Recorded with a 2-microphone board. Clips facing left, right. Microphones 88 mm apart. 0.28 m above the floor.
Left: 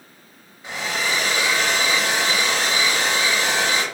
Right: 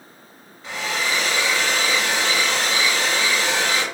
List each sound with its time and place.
0.6 s a hair dryer: 15° left (ahead or behind), 1.7 m